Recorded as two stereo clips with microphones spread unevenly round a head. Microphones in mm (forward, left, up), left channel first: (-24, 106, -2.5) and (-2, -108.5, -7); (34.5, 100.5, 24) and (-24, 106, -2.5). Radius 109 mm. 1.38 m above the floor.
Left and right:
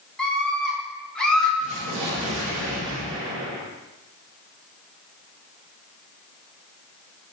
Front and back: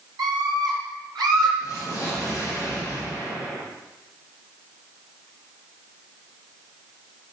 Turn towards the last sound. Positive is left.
turn(degrees=-100)